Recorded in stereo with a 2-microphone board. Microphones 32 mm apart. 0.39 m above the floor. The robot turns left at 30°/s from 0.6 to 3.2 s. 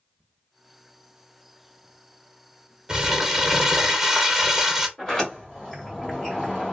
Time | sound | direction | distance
2.9 | crumpling | 15° right (ahead or behind) | 0.5 m
5.0 | a sliding door | 15° left (ahead or behind) | 1.3 m